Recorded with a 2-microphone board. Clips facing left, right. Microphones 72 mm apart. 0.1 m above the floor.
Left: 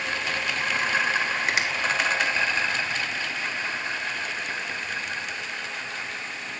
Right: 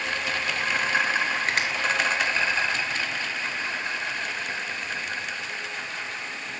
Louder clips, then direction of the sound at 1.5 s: Left 2 dB; 5° left (ahead or behind).